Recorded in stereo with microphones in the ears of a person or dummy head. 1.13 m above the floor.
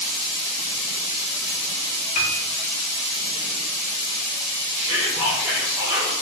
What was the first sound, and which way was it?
A piano, 40° left (ahead or behind).